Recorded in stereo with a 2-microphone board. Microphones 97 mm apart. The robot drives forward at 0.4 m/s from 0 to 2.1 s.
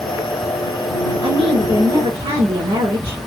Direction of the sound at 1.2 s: 85° right.